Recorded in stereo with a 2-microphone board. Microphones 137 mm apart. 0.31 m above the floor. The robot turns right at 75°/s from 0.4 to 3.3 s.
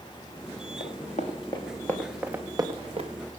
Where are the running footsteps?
80° left, 3 m; by 3.1 s 55° right (ahead or behind), 2.5 m.